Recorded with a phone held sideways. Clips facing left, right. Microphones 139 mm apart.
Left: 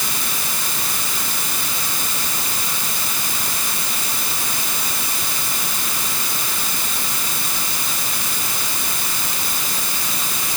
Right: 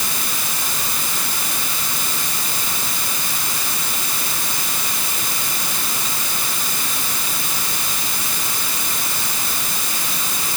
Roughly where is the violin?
No violin in this recording.